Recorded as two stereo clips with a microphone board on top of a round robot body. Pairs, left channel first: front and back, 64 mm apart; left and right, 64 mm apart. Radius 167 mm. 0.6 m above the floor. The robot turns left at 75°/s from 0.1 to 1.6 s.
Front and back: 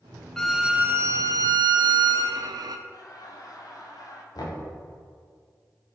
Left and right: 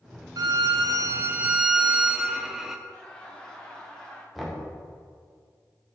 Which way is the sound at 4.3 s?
Straight ahead.